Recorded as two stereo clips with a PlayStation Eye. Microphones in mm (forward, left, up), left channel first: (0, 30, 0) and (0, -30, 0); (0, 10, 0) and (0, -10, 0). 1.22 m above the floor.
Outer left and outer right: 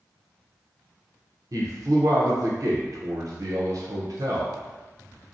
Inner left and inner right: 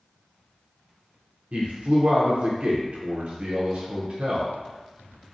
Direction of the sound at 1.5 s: 75° right (ahead or behind).